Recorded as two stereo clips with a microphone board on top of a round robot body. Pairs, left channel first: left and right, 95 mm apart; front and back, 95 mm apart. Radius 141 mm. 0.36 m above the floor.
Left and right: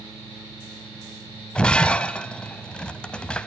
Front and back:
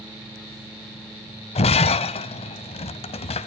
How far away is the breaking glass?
About 0.5 m.